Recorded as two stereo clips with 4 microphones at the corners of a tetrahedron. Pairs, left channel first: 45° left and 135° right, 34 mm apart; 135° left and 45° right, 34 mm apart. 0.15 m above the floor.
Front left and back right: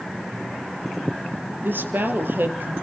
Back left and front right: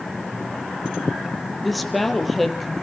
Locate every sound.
1.6 s a woman speaking: 140° right, 3 m